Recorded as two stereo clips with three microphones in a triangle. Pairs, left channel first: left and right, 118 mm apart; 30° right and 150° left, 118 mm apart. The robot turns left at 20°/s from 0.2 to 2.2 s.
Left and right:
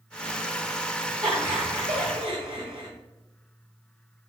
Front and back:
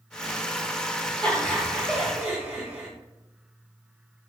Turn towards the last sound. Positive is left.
turn(degrees=-120)